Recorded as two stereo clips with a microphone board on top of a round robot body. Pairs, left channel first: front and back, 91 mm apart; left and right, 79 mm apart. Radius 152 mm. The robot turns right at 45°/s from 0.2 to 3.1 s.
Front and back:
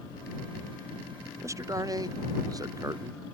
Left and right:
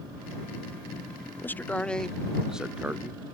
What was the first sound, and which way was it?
A man speaking, 140° left.